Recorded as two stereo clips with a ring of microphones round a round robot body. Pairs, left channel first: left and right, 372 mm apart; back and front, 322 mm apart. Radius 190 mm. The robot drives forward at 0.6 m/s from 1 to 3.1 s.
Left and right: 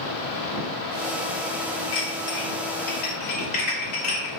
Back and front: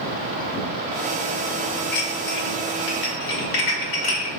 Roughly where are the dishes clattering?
Behind left.